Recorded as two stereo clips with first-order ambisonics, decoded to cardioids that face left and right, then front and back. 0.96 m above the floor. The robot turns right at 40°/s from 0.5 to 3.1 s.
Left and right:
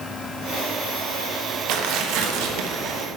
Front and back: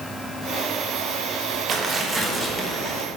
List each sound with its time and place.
1.7 s tearing paper: 120° right, 1.2 m; by 3.0 s 65° right, 1.2 m